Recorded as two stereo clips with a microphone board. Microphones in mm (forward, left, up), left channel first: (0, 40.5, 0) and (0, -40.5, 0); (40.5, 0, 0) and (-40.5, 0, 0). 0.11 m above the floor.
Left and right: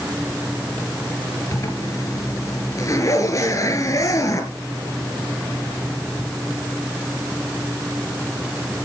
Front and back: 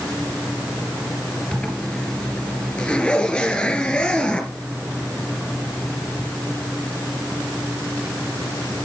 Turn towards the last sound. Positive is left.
turn(degrees=80)